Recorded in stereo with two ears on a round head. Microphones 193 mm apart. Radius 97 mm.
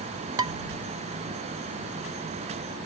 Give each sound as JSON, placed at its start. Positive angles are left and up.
{"t": 0.4, "sound": "dishes clattering", "side_deg": -20}